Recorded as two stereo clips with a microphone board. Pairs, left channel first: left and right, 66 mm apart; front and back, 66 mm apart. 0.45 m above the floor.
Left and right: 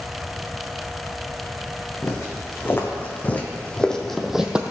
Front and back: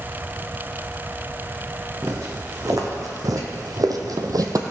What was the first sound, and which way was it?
Footsteps, 140° left.